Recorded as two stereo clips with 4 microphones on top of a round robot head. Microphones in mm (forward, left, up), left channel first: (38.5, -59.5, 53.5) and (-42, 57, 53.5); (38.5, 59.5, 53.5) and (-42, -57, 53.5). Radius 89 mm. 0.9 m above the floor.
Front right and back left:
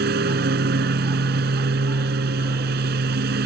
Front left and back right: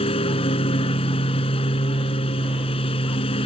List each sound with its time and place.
0.0 s a lawn mower: 110° left